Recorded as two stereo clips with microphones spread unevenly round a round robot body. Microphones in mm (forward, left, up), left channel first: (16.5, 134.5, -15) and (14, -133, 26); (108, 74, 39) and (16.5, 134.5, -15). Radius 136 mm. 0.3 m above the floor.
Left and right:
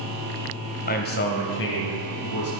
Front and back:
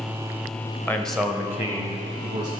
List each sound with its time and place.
0.9 s a man speaking: 65° left, 1.1 m; by 2.5 s 130° left, 2 m